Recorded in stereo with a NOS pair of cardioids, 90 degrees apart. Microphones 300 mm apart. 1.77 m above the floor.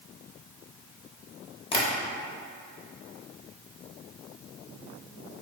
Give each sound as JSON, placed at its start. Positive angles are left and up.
{"t": 1.7, "sound": "tapping", "azimuth_deg": 20, "distance_m": 0.7}